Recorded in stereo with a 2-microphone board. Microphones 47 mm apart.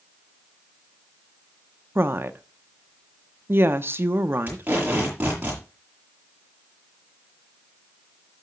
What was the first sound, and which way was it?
A woman speaking, 50° right (ahead or behind).